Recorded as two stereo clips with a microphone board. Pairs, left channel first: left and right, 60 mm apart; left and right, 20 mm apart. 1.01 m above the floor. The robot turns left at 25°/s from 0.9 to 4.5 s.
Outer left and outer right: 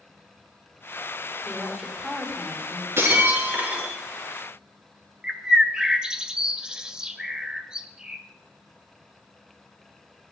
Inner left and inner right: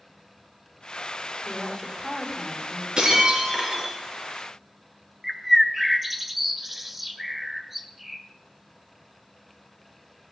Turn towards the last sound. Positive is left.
turn(degrees=-15)  # may be behind; listen again after turning